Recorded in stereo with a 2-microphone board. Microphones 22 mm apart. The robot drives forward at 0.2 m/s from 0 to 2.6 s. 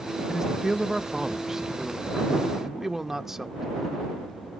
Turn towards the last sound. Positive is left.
turn(degrees=-15)  # may be behind; listen again after turning